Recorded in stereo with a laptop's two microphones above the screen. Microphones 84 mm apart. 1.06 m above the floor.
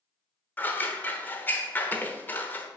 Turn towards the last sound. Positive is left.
turn(degrees=20)  # may be behind; listen again after turning